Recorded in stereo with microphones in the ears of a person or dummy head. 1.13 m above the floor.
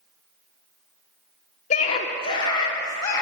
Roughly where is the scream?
Left.